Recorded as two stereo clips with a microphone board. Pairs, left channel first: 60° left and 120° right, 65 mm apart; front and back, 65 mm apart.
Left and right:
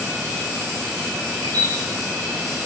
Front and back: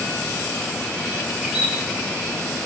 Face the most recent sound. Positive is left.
turn(degrees=-100)